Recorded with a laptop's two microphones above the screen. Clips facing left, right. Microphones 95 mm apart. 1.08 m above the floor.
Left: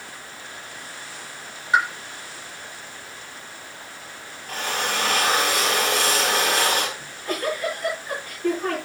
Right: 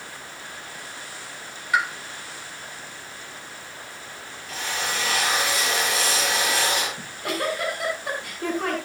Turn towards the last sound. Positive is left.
turn(degrees=-85)